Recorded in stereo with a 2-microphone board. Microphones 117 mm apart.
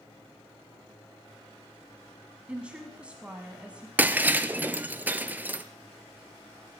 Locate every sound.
2.5 s a woman speaking: 10° right (ahead or behind), 1.1 m
4.0 s breaking glass: 15° right (ahead or behind), 0.5 m